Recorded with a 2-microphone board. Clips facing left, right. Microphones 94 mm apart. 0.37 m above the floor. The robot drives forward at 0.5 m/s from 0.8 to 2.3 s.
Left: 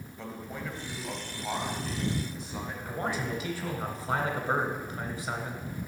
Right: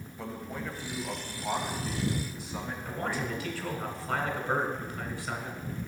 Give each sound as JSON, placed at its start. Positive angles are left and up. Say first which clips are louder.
{"t": 0.2, "sound": "a man speaking", "louder": "right 1 dB", "side_deg": -5, "distance_m": 1.8}
{"t": 2.9, "sound": "a man speaking", "louder": "left 1 dB", "side_deg": 20, "distance_m": 1.8}